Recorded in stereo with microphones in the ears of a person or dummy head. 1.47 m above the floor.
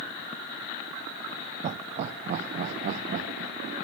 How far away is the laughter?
About 0.6 m.